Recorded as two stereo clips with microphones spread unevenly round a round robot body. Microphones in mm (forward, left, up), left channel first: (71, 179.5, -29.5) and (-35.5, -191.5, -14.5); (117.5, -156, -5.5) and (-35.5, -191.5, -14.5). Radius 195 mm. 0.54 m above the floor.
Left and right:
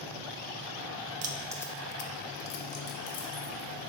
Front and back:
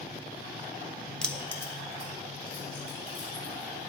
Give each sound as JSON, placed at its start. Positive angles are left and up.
{"t": 1.2, "sound": "keys jangling", "azimuth_deg": -75, "distance_m": 0.6}